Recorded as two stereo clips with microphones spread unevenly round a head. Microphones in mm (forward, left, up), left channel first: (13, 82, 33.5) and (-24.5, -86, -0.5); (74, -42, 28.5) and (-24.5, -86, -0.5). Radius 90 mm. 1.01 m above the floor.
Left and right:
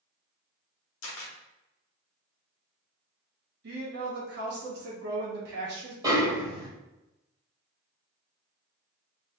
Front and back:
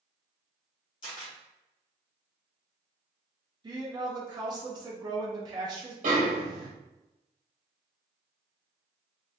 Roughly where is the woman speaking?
Behind right.